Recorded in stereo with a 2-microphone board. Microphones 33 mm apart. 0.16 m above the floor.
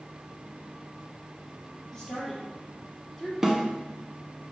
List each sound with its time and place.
1.9 s a woman speaking: 15° left (ahead or behind), 3 m; by 3.3 s centre (ahead or behind), 3 m
3.4 s a snare drum: 15° right (ahead or behind), 0.9 m